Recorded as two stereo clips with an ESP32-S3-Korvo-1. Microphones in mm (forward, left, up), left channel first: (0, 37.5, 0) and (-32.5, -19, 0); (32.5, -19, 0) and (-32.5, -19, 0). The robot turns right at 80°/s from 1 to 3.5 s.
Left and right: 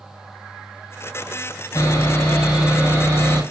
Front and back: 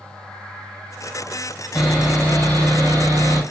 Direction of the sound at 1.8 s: 90° left.